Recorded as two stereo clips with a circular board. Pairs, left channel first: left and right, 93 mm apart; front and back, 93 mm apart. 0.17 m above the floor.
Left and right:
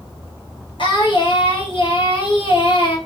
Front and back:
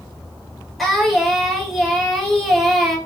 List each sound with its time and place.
0.8 s singing: 90° left, 1.5 m